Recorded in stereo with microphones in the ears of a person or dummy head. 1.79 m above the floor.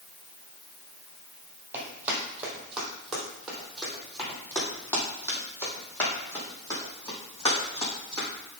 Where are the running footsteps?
10° right (ahead or behind), 3.5 m; by 8.3 s 25° left (ahead or behind), 5.5 m.